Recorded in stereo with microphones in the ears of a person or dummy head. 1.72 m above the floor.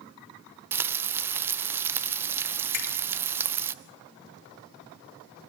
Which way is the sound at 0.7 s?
10° right (ahead or behind).